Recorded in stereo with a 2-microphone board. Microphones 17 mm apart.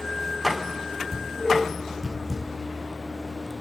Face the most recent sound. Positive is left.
turn(degrees=20)  # may be behind; listen again after turning